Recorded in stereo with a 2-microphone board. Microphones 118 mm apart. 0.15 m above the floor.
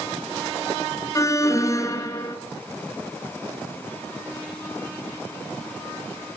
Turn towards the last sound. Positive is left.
turn(degrees=25)  # may be behind; listen again after turning